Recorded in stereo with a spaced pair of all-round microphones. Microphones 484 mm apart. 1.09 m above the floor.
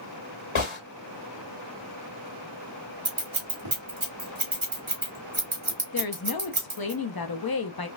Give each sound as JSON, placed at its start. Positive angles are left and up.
{"t": 0.6, "sound": "a gunshot", "side_deg": 75, "distance_m": 1.4}
{"t": 3.0, "sound": "scissors", "side_deg": -75, "distance_m": 1.5}
{"t": 5.9, "sound": "a woman speaking", "side_deg": 50, "distance_m": 0.7}